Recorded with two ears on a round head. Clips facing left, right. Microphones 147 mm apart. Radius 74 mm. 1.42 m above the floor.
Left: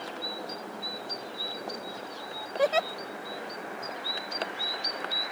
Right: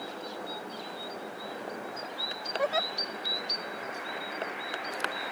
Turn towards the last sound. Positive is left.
turn(degrees=35)  # may be behind; listen again after turning